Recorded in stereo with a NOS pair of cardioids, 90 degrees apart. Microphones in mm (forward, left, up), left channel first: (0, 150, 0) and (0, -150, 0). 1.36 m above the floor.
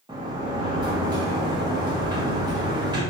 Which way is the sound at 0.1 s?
15° right.